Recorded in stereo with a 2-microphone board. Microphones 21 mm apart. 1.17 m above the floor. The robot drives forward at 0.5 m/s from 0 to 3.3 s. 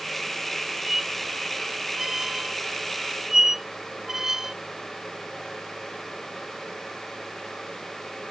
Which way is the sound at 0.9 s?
20° right (ahead or behind).